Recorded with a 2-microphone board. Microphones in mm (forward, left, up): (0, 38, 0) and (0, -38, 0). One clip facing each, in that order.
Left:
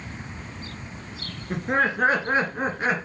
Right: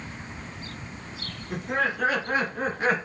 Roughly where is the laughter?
Left.